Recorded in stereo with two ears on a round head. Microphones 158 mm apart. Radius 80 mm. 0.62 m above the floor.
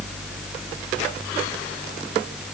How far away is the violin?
No violin in this recording.